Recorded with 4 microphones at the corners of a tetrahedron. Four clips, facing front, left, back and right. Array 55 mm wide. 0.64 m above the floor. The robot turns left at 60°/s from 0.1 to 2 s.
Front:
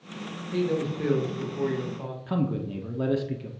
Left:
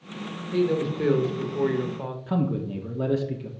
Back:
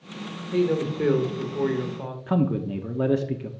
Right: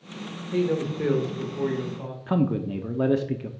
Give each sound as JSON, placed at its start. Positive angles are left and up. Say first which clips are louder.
{"t": 0.5, "sound": "a man speaking", "louder": "left 1 dB, back 4 dB", "azimuth_deg": -145, "distance_m": 1.1}
{"t": 2.3, "sound": "a man speaking", "louder": "right 3 dB, back 4 dB", "azimuth_deg": -130, "distance_m": 0.7}